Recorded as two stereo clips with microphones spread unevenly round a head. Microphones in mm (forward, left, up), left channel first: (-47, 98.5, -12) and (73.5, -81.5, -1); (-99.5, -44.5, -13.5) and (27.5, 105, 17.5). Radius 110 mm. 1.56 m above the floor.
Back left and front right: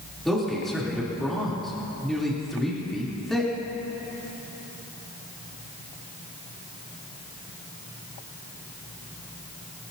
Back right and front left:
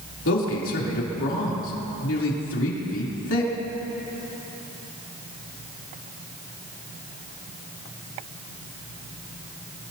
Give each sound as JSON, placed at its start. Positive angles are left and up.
{"t": 0.2, "sound": "a man speaking", "azimuth_deg": -145, "distance_m": 3.5}